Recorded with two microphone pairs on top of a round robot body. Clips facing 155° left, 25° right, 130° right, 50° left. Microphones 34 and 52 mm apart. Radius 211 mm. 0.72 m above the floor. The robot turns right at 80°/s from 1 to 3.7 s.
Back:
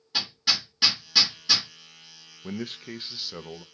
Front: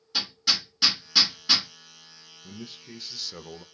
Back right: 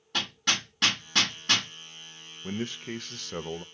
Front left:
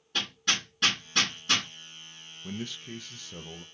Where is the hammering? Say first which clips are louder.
Even, back right 1 dB; 130° right, 1.8 m; by 1.7 s 75° right, 1.8 m.